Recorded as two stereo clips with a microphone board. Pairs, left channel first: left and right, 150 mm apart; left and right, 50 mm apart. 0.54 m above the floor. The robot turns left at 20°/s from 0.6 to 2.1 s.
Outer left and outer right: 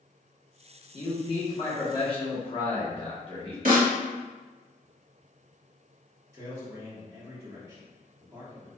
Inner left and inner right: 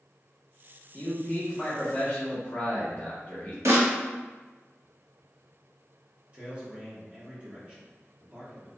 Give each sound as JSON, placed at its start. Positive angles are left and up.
{"t": 0.9, "sound": "a man speaking", "side_deg": 30, "distance_m": 1.0}
{"t": 3.6, "sound": "a snare drum", "side_deg": -65, "distance_m": 1.0}
{"t": 6.3, "sound": "a man speaking", "side_deg": -20, "distance_m": 0.9}